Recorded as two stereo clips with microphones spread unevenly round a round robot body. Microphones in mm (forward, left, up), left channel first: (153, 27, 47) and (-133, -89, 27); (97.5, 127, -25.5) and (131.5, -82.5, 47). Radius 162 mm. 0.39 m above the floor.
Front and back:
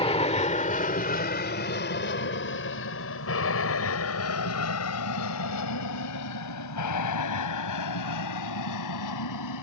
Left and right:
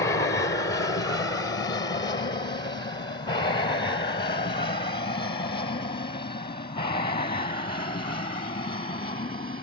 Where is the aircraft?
85° left; by 9.6 s 45° left.